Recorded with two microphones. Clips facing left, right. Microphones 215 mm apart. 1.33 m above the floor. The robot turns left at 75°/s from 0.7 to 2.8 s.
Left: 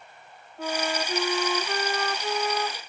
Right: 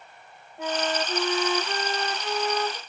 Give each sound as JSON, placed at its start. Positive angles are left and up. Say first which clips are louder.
{"t": 0.6, "sound": "a flute", "louder": "right 1 dB", "side_deg": -20, "distance_m": 1.2}